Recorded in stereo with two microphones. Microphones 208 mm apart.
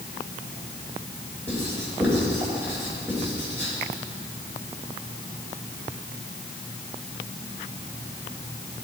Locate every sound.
1.5 s writing: 10° right (ahead or behind), 4 m